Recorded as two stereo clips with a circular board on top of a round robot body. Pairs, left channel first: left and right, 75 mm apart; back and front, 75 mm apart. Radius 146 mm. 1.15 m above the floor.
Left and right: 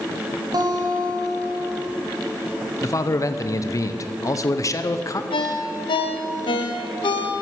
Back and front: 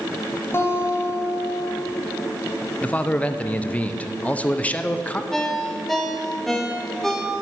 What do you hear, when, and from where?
0.5 s a guitar: 120° right, 2 m
2.8 s a man speaking: 115° left, 0.8 m
5.3 s a ringtone: 95° left, 0.6 m